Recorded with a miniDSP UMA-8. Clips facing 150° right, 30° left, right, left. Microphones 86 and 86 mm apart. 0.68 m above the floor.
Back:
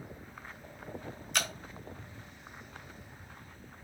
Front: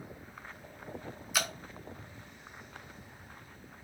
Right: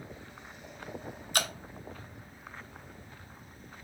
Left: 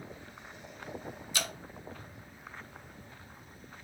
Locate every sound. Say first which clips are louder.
1.3 s dripping: front 1 dB, right 5 dB; 55° right, 0.6 m